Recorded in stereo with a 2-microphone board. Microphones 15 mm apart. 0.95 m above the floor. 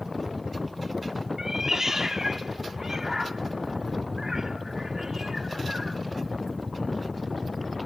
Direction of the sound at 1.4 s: 25° right (ahead or behind).